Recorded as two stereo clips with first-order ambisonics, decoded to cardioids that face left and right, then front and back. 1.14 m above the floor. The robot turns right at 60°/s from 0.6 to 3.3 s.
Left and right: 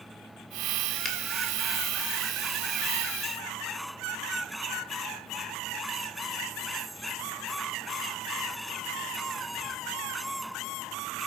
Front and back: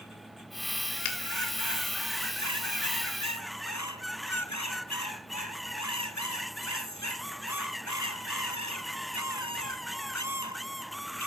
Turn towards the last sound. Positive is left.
turn(degrees=165)